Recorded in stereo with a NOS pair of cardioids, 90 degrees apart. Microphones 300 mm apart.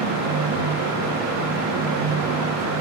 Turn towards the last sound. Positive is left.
turn(degrees=-60)